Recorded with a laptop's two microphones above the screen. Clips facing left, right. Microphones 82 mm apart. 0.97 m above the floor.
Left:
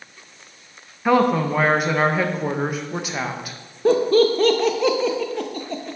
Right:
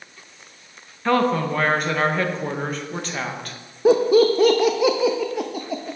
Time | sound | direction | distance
1.1 | a woman speaking | 10° left (ahead or behind) | 0.7 m
3.9 | laughter | 10° right (ahead or behind) | 0.6 m